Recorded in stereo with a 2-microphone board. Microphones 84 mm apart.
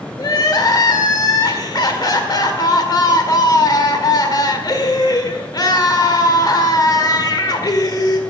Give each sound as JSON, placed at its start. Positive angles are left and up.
{"t": 0.2, "sound": "crying", "side_deg": 50, "distance_m": 1.6}